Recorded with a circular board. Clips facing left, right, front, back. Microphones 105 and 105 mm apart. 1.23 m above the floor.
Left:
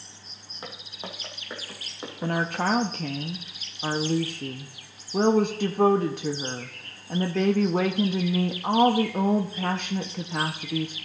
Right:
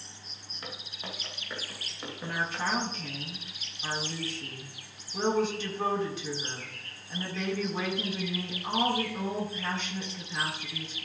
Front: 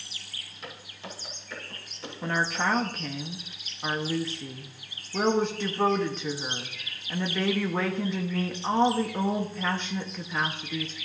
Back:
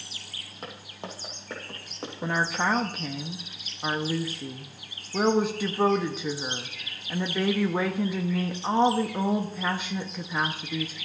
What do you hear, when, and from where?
0.6 s footsteps: 150° left, 2.5 m; by 2.7 s 160° left, 3.5 m
2.2 s a woman speaking: 100° left, 0.6 m